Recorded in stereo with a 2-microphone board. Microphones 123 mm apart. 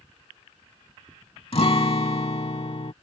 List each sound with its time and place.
1.5 s a guitar: 50° left (ahead or behind)